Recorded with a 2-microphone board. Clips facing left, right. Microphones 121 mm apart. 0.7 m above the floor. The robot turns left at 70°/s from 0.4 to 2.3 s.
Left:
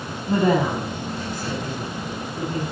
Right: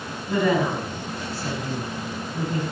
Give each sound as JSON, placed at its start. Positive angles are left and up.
{"t": 0.3, "sound": "a woman speaking", "side_deg": 35, "distance_m": 4.5}